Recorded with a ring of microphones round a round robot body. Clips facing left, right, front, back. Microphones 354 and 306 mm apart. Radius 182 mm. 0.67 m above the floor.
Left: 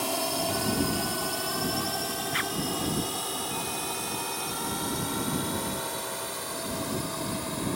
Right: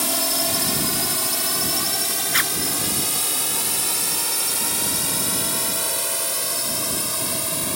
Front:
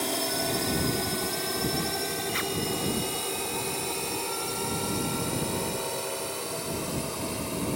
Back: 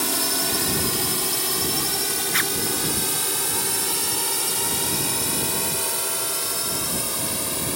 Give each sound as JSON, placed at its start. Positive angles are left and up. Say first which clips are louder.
{"t": 0.0, "sound": "a drone", "louder": "right 3 dB, back 2 dB", "azimuth_deg": -115}
{"t": 2.3, "sound": "a zipper", "louder": "right 2 dB, back 2 dB", "azimuth_deg": -110}